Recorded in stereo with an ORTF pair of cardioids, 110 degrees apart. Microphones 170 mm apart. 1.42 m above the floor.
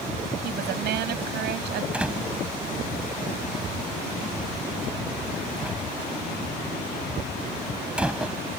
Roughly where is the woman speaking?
Right.